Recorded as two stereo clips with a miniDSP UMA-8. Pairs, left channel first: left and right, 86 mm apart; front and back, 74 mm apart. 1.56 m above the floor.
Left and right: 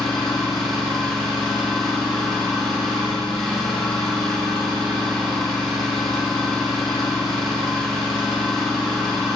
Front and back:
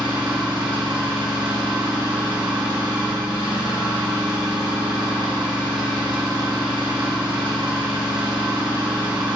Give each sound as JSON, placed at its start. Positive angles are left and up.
{"t": 0.0, "sound": "an engine running", "azimuth_deg": 175, "distance_m": 2.5}